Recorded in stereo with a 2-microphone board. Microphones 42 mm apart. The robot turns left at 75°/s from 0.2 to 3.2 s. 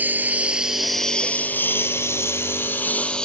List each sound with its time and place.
0.0 s a lawn mower: 40° right (ahead or behind); by 3.3 s 20° left (ahead or behind)